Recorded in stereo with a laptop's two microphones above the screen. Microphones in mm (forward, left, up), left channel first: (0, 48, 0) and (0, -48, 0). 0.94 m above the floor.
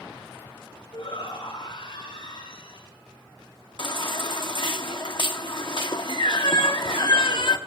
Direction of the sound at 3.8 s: 55° left (ahead or behind).